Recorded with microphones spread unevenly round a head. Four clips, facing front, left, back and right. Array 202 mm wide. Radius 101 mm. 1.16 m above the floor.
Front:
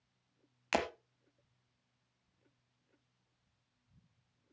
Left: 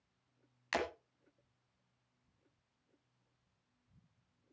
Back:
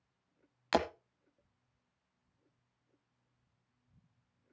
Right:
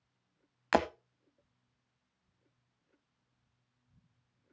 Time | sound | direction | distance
0.7 | breaking glass | 105° right | 1.3 m